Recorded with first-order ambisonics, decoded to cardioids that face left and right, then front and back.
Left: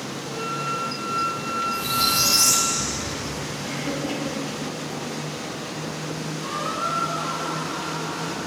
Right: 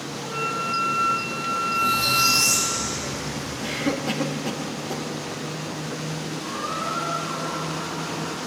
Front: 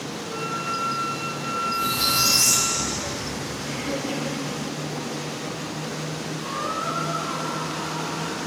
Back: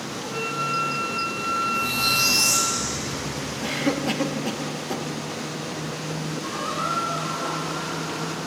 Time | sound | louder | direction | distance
0.2 | a flute | right 2 dB, back 2 dB | 130° right | 3 m
1.7 | a squeak | right 2 dB, front 2 dB | 55° left | 3 m
3.6 | a cough | right 4 dB, back 6 dB | 145° right | 0.9 m
6.4 | a squeak | left 3 dB, even | 95° left | 3 m